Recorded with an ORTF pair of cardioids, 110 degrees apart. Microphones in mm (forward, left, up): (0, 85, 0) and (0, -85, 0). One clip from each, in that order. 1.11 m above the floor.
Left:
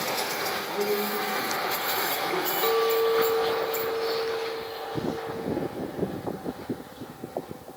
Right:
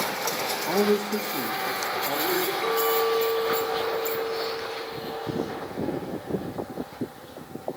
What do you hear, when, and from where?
0.7 s a man speaking: 55° right, 0.6 m; by 2.5 s 75° right, 2.5 m
2.6 s a clink: 15° left, 0.7 m